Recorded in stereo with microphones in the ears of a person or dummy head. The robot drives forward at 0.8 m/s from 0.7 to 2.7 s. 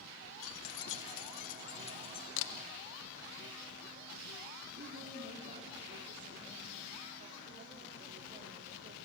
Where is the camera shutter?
80° left, 1.3 m; by 2.5 s 75° left (ahead or behind), 1.4 m.